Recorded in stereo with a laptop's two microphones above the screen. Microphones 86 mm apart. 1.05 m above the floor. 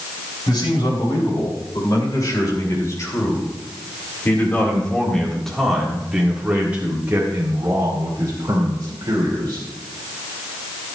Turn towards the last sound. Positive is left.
turn(degrees=-55)  # may be behind; listen again after turning